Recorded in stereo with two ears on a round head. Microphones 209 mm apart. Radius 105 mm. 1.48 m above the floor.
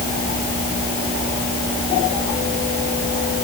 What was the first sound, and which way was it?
Only background noise.